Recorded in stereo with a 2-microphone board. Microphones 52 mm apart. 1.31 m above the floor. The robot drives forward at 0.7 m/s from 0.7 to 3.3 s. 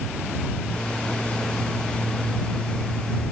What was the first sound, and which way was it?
Only background noise.